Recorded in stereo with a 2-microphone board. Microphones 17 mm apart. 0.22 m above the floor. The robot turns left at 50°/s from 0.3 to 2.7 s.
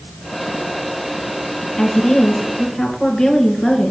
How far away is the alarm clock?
I don't hear an alarm clock.